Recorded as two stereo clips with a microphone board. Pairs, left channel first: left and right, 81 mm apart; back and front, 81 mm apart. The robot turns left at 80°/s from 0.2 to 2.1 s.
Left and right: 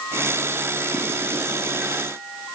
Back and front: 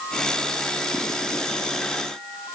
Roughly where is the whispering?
I don't hear whispering.